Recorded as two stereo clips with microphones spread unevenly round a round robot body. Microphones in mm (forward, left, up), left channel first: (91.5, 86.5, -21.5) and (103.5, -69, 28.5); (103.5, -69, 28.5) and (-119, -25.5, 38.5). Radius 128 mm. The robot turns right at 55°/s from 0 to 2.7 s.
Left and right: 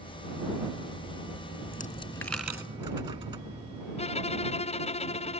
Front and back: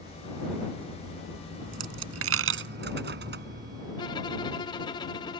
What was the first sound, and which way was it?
A dropped coin, 145° left.